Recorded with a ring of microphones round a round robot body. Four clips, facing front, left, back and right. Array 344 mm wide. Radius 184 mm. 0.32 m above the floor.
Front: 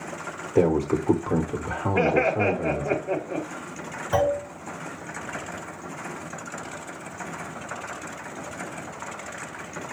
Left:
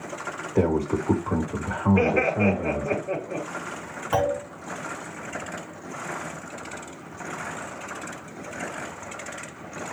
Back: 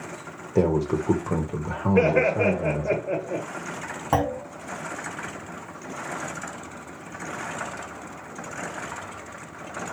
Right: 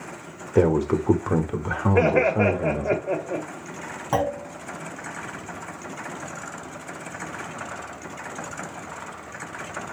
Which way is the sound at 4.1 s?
165° right.